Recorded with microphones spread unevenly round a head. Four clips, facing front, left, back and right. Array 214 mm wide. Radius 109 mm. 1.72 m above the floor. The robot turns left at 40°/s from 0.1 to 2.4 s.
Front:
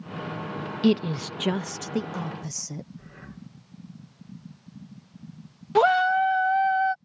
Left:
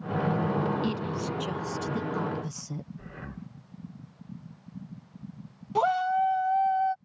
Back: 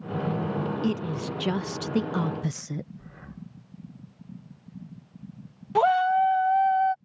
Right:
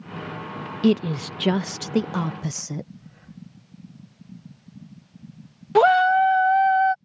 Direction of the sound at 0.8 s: 65° right.